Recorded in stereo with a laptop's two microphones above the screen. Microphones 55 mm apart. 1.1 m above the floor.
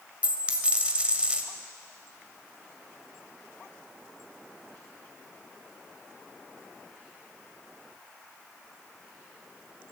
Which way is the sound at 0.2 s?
25° right (ahead or behind).